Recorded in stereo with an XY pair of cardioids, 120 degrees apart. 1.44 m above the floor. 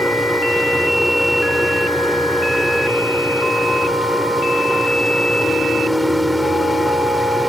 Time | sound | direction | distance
0.0 | a machine running | straight ahead | ?